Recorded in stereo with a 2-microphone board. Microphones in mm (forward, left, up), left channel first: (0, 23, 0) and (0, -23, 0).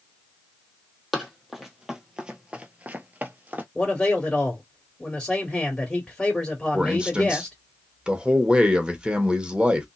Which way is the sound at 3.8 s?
15° left (ahead or behind).